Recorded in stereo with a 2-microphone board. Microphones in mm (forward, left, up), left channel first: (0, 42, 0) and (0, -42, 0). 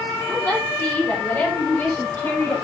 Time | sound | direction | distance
0.3 | a woman speaking | 15° left (ahead or behind) | 4.5 m